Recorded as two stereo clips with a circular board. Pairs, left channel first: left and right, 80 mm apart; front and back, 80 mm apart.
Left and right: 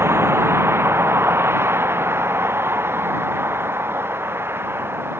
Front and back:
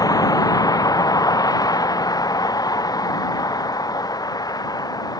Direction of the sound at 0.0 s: 30° right.